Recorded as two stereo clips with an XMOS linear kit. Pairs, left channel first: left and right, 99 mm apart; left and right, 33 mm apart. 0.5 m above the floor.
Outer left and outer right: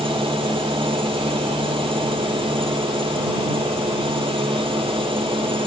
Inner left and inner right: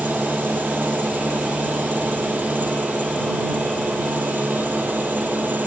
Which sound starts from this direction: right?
An engine running, at 0.0 s.